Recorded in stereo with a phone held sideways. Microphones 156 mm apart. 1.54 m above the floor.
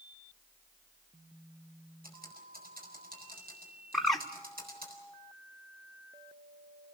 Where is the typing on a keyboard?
70° right (ahead or behind), 5 m.